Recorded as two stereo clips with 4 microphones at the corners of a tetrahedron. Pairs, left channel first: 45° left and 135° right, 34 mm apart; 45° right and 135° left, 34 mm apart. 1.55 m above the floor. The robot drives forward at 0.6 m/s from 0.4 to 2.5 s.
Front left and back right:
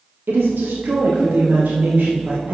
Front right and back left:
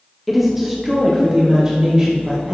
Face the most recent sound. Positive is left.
turn(degrees=-165)